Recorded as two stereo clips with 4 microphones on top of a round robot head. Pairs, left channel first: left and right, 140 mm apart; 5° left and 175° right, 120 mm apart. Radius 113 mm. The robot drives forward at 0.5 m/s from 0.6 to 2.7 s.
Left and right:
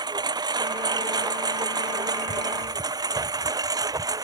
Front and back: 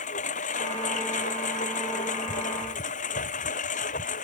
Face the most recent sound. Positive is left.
turn(degrees=-25)